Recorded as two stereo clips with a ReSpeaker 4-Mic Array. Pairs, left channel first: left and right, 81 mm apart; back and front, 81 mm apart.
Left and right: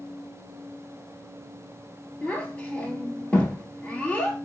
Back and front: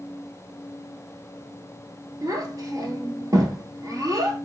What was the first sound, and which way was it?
A child speaking, 20° left.